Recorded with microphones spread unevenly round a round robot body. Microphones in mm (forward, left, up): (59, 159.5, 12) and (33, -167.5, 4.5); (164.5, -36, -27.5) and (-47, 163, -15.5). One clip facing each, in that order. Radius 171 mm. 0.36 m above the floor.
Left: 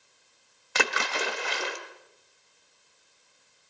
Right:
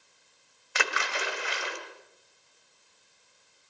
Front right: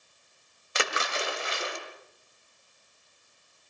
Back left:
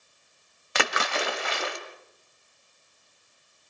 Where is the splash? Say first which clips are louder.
Left 4 dB, back left 3 dB; 125° left, 1.8 m.